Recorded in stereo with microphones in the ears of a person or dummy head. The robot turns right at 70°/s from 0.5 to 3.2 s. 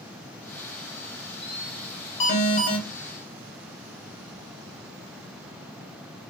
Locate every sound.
2.2 s an alarm: 60° left, 0.9 m; by 2.8 s 100° left, 0.9 m